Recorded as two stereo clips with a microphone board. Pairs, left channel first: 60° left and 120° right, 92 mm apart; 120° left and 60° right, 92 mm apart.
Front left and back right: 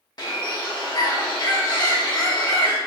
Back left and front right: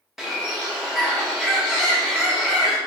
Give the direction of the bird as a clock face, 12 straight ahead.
11 o'clock.